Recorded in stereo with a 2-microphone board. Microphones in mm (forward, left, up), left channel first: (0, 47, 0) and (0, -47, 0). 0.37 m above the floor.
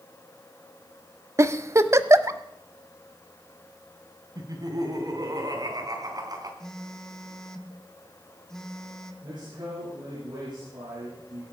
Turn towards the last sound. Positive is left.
turn(degrees=-50)  # may be behind; listen again after turning